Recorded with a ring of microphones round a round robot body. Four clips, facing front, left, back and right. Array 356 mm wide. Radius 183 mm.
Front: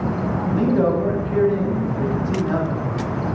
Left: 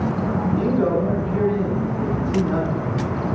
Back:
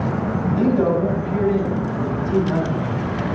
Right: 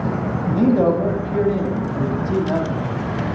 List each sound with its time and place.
0.5 s a man speaking: 70° right, 3 m